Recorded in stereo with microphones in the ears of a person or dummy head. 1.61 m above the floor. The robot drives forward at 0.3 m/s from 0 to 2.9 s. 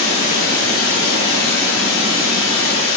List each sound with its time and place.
0.0 s running water: 55° left (ahead or behind), 1.4 m